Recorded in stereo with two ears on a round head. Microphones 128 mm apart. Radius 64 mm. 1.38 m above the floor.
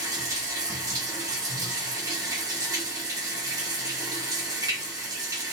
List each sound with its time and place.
0.0 s running water: 25° right (ahead or behind), 0.8 m